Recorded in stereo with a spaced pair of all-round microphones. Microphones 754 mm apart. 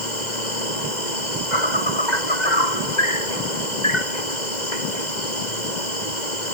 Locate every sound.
0.0 s an insect: 80° left